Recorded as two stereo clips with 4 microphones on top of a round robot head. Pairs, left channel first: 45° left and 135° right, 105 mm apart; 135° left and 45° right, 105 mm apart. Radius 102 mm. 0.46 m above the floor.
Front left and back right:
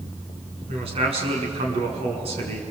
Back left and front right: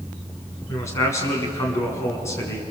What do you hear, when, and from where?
0.7 s a man speaking: 160° right, 6 m